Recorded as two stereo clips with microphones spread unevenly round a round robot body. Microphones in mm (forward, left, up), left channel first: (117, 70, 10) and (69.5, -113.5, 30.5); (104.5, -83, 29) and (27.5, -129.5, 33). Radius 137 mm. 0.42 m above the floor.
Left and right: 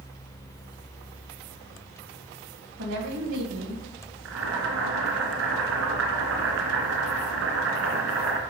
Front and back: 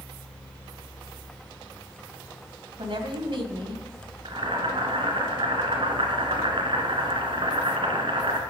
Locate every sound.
2.8 s a woman speaking: 130° right, 2.5 m
4.2 s boiling: 130° right, 2.5 m